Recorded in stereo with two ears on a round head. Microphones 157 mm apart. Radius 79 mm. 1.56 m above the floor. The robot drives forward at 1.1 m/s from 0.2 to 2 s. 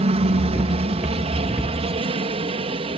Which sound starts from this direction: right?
A helicopter, at 0.0 s.